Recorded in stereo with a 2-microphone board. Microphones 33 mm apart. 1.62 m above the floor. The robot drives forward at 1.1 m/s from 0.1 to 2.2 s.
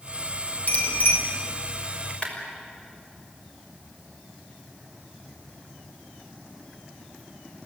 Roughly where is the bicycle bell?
Left.